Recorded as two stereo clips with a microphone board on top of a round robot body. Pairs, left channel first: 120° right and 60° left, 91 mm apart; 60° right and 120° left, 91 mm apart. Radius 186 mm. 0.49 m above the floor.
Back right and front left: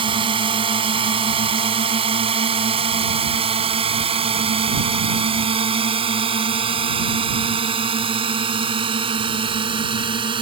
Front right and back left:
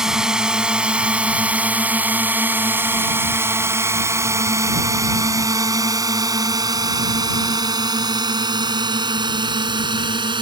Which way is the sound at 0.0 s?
35° left.